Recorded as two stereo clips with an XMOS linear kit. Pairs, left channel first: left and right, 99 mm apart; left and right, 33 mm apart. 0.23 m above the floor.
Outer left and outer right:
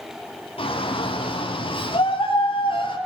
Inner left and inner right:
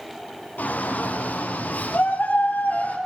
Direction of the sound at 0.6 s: 65° left (ahead or behind).